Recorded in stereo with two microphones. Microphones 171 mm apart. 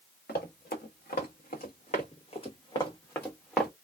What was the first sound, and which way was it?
Running footsteps, 80° left.